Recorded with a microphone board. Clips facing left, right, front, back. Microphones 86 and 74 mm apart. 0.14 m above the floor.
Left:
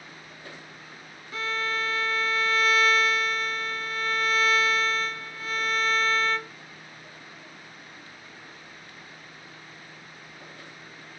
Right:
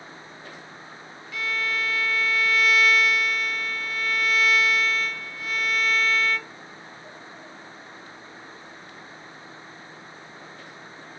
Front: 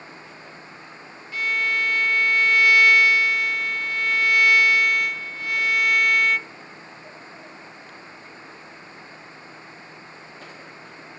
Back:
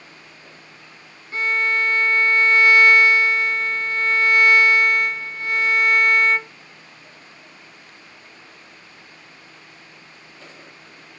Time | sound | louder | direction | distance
1.3 | a violin | right 1 dB, back 3 dB | 130° left | 0.6 m